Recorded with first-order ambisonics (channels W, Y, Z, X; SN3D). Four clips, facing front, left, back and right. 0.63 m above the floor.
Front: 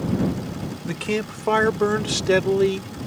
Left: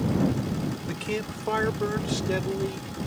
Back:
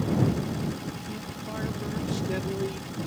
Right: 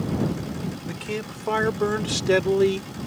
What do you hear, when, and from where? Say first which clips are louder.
0.8 s a man speaking: even, front 11 dB; 5° left; by 2.9 s 50° right